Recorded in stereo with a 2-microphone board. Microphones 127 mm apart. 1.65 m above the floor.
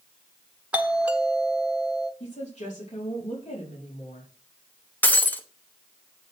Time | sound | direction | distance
0.7 | a doorbell | 10° right (ahead or behind) | 1.3 m
2.2 | a woman speaking | 60° left (ahead or behind) | 4.5 m
5.0 | breaking glass | 15° left (ahead or behind) | 1.0 m